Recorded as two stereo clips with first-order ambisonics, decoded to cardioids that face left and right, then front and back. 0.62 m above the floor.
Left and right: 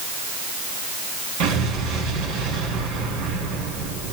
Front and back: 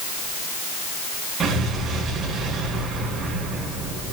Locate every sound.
1.4 s an explosion: 105° right, 4.5 m